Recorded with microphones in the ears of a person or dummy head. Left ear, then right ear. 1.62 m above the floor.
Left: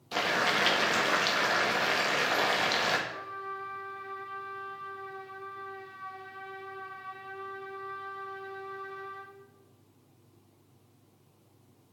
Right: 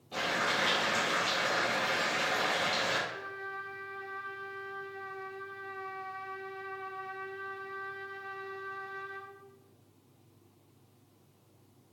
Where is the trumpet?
25° right (ahead or behind), 2.5 m.